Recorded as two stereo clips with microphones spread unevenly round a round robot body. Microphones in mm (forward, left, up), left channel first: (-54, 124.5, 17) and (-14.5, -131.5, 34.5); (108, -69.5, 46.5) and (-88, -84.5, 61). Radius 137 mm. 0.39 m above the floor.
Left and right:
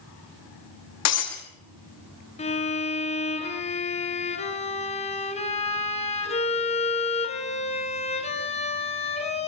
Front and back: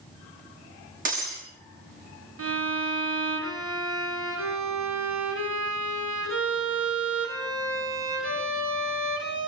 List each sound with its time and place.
1.1 s breaking glass: 125° left, 6 m
2.4 s a violin: 165° left, 5 m